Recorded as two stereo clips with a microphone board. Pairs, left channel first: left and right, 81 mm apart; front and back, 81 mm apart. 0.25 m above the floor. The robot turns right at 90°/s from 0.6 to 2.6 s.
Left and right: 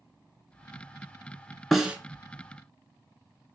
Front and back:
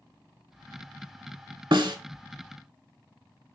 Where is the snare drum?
175° left, 0.6 m; by 2.0 s 160° right, 0.6 m.